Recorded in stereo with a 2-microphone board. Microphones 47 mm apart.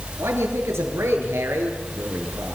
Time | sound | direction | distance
0.2 | a man speaking | 75° right (ahead or behind) | 8.5 m